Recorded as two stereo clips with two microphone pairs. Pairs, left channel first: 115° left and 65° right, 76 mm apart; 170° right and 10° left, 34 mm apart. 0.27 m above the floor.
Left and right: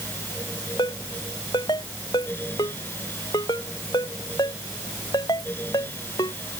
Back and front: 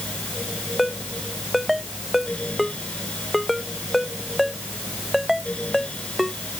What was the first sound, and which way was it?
A ringtone, 100° left.